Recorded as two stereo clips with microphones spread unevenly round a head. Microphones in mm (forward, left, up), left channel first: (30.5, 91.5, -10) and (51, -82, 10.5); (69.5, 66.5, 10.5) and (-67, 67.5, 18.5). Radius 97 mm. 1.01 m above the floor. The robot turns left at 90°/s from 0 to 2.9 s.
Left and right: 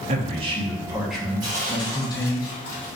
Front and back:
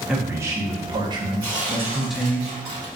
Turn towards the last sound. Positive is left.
turn(degrees=120)